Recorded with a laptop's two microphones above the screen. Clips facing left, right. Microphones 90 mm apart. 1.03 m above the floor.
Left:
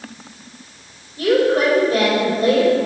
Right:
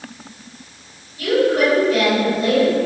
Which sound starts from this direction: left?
A woman speaking, at 1.2 s.